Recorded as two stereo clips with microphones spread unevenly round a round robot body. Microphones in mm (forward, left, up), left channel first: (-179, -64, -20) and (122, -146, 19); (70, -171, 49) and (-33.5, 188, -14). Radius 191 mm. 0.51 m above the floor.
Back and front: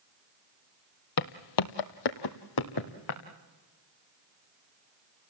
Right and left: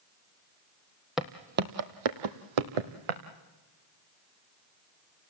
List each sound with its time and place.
1.2 s footsteps: 160° right, 1.2 m; by 3.2 s 115° left, 2 m